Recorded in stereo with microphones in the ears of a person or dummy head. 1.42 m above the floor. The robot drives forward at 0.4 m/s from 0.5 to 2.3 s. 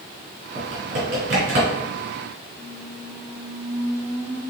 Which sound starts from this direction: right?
Typing on a keyboard, at 0.6 s.